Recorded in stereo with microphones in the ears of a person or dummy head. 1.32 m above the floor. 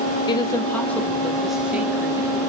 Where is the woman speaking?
30° left (ahead or behind), 2.5 m; by 2.4 s 15° right (ahead or behind), 3 m.